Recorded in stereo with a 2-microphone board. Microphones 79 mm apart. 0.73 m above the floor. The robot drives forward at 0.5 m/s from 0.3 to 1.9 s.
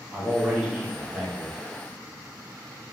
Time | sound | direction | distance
0.1 | a man speaking | 15° right (ahead or behind) | 0.8 m